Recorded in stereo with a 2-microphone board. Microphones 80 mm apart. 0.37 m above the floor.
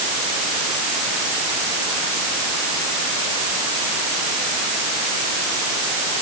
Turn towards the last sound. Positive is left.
No sound to turn to.